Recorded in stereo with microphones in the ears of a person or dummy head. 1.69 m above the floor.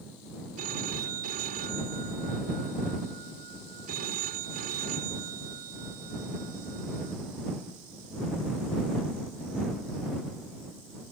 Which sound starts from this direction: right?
A phone ringing, at 0.6 s.